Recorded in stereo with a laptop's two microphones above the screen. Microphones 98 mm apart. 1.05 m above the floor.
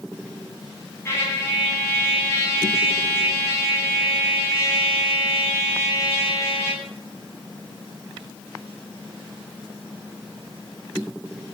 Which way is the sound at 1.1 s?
30° left (ahead or behind).